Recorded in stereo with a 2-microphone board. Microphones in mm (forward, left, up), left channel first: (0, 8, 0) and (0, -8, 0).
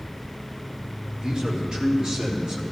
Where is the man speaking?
60° right (ahead or behind), 2.5 m; by 2.6 s 50° right (ahead or behind), 3 m.